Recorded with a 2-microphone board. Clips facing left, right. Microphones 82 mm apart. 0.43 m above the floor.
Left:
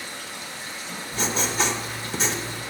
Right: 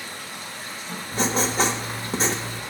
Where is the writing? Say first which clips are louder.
Right 3 dB; 45° right (ahead or behind), 1.5 m.